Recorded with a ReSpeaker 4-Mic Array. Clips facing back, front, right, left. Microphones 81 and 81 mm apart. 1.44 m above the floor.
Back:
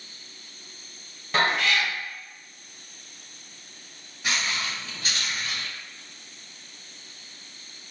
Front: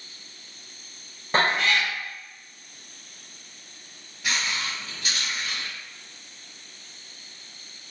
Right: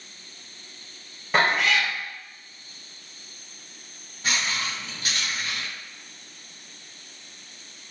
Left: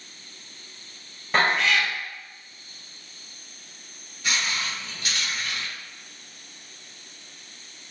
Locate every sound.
1.3 s a cat meowing: 5° right, 0.7 m
4.2 s footsteps: 115° right, 1.6 m; by 5.7 s 165° right, 1.8 m